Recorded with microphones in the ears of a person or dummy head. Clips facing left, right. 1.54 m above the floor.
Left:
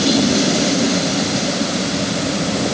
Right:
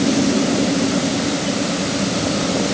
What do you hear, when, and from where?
Only background noise.